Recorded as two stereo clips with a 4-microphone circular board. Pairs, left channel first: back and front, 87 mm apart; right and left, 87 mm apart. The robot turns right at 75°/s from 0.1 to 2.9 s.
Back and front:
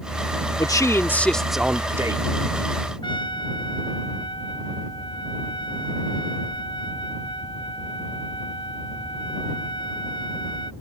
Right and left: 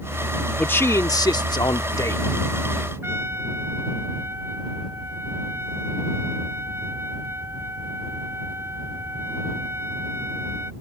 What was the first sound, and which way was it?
A man speaking, 155° right.